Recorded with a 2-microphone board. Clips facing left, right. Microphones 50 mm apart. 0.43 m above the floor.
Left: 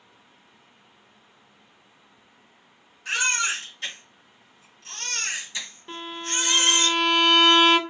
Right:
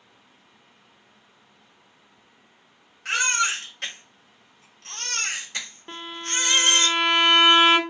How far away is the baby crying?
About 1.0 m.